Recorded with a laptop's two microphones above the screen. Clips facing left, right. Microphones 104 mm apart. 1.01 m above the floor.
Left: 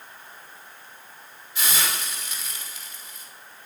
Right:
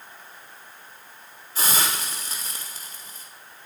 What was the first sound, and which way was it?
A hiss, 40° right (ahead or behind).